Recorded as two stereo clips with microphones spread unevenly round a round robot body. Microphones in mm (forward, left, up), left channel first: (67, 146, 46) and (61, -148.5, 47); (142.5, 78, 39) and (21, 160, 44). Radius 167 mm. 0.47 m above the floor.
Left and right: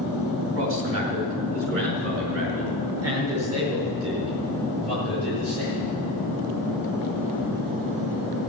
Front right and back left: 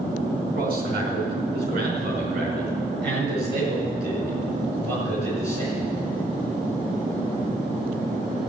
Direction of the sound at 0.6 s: 140° right.